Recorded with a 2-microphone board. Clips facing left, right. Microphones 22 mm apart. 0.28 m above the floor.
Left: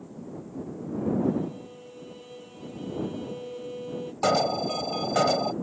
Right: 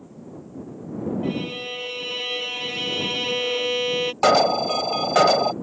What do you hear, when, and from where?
1.2 s a violin: 75° right (ahead or behind)
4.2 s an alarm: 35° right (ahead or behind)